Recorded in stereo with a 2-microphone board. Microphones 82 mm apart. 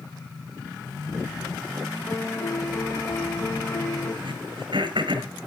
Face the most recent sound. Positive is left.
turn(degrees=-80)